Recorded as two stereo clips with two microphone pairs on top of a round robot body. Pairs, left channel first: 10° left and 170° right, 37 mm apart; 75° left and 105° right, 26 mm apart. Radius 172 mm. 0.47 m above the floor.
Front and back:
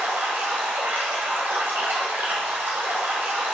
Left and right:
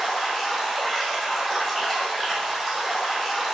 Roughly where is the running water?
Behind.